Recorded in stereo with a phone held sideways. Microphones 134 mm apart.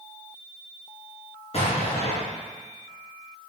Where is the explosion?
50° left (ahead or behind), 3.5 m.